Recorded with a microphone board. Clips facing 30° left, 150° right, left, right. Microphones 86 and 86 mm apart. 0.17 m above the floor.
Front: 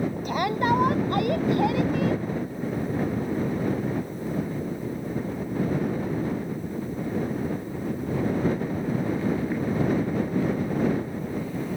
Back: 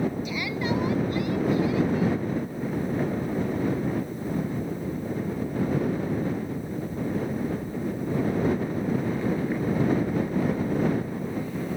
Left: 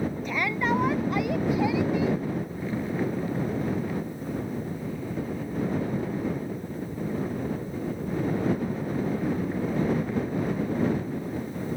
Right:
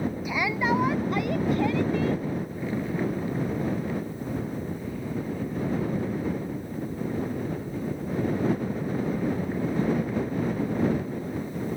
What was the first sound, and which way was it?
A shout, 10° right.